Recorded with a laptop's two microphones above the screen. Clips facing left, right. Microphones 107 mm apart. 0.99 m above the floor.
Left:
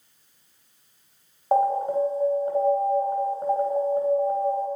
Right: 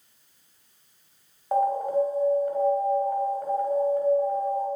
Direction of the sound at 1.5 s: 30° left (ahead or behind).